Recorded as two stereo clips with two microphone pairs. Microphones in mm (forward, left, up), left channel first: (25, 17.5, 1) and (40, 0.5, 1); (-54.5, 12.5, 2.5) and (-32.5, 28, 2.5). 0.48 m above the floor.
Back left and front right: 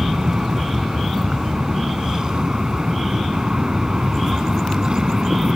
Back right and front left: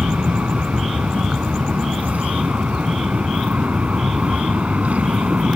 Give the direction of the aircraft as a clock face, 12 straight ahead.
12 o'clock.